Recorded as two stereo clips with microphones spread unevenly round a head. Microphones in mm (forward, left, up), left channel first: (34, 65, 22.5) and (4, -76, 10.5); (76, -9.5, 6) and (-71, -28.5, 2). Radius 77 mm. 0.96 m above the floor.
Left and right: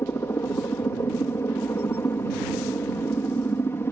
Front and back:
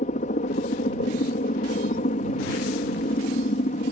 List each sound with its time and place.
0.0 s a helicopter: 5° left